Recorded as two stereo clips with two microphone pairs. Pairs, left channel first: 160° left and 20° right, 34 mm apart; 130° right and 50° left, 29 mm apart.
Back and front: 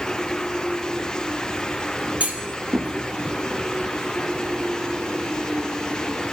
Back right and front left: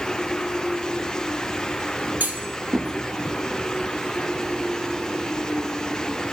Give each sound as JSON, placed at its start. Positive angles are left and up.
{"t": 2.2, "sound": "a clunk", "azimuth_deg": 30, "distance_m": 0.8}